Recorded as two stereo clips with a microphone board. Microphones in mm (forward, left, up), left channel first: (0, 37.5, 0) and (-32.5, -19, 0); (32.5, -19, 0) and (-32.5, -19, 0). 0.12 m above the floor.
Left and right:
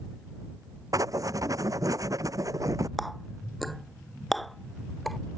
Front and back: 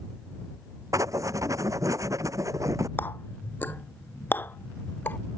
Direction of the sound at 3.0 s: 25° right.